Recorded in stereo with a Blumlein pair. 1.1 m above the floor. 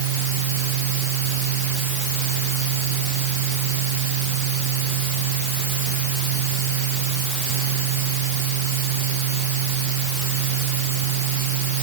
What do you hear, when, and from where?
0.0 s a fan: 50° right